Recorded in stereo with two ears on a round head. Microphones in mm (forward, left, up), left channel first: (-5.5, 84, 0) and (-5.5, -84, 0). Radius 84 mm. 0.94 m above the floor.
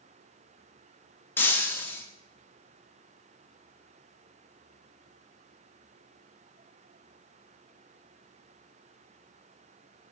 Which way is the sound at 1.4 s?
10° left (ahead or behind).